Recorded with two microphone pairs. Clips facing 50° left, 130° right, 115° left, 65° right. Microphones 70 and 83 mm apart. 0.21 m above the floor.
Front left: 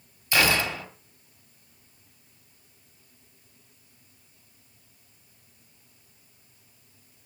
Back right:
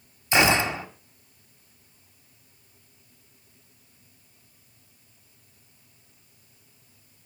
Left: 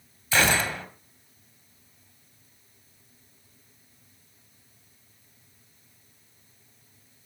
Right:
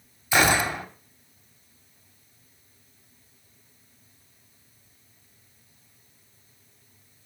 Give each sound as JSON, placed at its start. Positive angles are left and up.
{"t": 0.3, "sound": "a gunshot", "azimuth_deg": -115, "distance_m": 1.5}